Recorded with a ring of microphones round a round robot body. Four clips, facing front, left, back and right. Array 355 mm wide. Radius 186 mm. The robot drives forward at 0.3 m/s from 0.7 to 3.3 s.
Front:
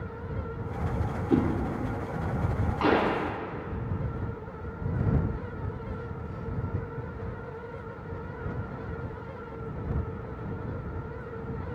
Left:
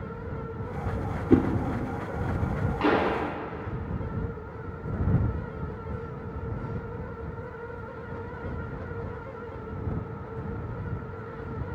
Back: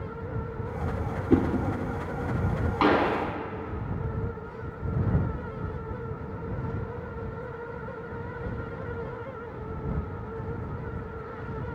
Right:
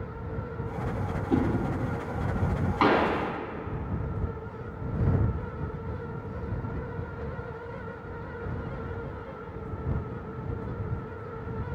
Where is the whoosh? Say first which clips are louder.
Left 5 dB, back 2 dB; 110° left, 1.1 m; by 1.4 s 115° left, 1.1 m.